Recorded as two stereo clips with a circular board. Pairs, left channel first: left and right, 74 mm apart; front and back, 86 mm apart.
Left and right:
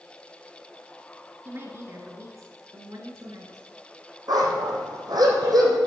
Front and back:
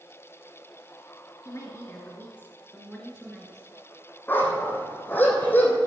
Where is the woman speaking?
40° right, 1.9 m; by 3.7 s 85° right, 1.9 m.